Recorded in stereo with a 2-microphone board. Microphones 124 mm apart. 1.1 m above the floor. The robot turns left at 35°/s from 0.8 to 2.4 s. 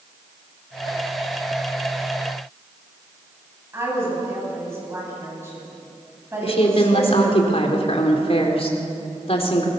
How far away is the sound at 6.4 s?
About 3.5 m.